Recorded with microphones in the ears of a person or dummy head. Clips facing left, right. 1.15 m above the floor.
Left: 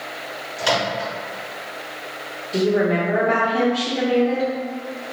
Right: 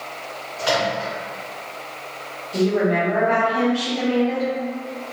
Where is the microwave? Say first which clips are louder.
Right 1 dB; 50° left (ahead or behind), 1.0 m.